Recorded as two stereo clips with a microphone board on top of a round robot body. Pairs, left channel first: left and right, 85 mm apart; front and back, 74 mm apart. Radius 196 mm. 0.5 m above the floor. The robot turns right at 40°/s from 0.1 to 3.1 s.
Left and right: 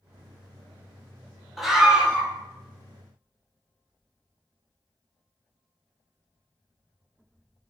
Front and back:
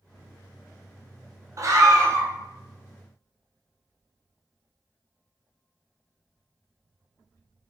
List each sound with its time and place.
1.6 s a scream: straight behind, 0.8 m; by 2.3 s 150° right, 0.8 m